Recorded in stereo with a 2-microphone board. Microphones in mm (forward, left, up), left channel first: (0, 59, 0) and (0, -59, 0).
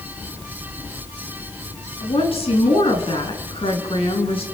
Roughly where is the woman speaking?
Left.